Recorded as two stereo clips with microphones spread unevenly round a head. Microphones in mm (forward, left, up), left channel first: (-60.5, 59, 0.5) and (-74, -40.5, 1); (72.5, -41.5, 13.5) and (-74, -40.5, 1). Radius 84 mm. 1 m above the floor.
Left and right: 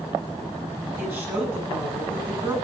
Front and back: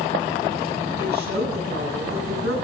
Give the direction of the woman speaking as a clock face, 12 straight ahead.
6 o'clock.